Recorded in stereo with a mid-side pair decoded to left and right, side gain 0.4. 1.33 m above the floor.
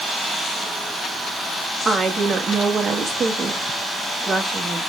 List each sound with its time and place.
1.9 s a woman speaking: 40° right, 2.5 m